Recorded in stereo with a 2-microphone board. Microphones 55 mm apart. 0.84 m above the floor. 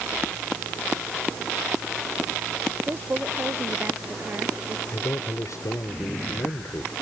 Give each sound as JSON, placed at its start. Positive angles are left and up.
{"t": 2.9, "sound": "a woman speaking", "side_deg": -40}
{"t": 4.9, "sound": "a man speaking", "side_deg": 75}